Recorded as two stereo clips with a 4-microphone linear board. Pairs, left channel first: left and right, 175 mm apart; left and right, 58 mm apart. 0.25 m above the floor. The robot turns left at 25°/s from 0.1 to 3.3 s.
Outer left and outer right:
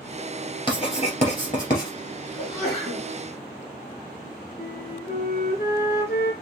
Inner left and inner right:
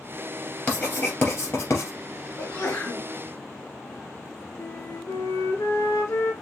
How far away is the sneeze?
About 2 m.